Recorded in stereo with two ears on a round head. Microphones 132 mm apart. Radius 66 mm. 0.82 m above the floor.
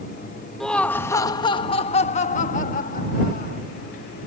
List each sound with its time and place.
0.6 s laughter: 5° left (ahead or behind); by 3.6 s 70° left (ahead or behind)